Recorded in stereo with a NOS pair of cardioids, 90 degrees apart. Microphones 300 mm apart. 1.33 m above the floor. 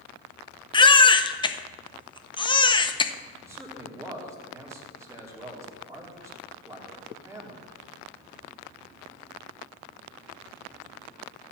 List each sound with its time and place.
0.7 s a baby crying: 15° left, 0.6 m
3.4 s a man speaking: 10° right, 3 m